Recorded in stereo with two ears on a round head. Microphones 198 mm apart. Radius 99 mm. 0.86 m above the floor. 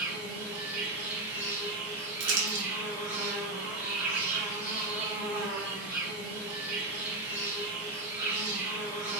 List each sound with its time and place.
0.0 s an insect: 10° right (ahead or behind), 1.6 m
2.2 s crumpling: 50° right (ahead or behind), 1.2 m